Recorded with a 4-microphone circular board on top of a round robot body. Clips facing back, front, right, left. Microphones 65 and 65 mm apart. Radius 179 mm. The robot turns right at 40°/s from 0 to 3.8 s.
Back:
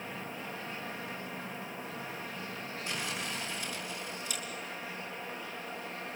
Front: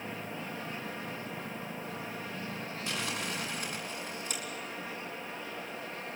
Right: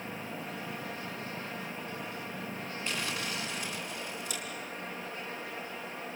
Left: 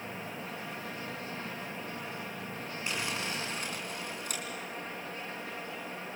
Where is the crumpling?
10° left, 4.5 m; by 4.4 s 50° left, 4.5 m.